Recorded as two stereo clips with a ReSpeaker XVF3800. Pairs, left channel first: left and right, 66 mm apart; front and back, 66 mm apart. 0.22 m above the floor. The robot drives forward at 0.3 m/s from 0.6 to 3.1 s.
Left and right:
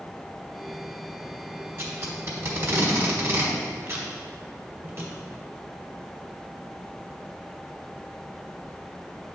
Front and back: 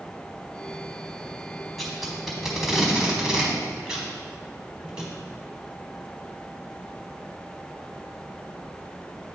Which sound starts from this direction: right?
Tape being pulled, at 1.8 s.